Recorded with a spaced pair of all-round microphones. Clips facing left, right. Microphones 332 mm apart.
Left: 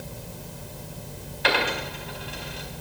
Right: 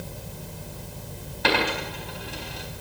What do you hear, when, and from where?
1.4 s a dropped coin: 55° right (ahead or behind), 4.5 m